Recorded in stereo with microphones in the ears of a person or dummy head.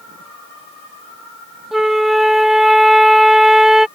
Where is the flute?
Centre (ahead or behind).